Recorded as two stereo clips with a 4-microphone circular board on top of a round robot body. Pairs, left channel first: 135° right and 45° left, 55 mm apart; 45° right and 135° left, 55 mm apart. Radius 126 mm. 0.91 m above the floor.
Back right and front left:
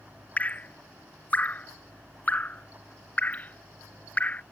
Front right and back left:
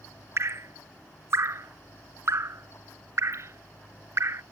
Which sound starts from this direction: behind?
Dripping, at 0.4 s.